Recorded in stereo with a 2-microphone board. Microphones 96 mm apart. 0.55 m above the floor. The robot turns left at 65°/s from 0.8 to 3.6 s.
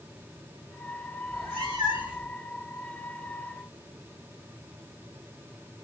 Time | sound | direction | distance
1.3 | a cat meowing | 110° right | 1.7 m